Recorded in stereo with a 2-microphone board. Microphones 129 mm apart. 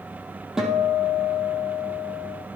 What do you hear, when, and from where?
0.6 s a guitar: 5° right (ahead or behind), 4 m